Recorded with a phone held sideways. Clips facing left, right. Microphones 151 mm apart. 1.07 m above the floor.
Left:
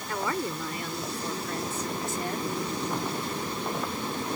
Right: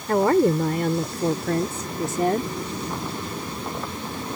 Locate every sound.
0.1 s a woman speaking: 55° right (ahead or behind); by 2.5 s 70° right (ahead or behind)